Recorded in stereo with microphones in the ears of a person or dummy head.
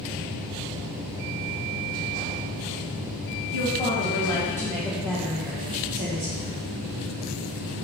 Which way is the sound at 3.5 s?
40° left (ahead or behind).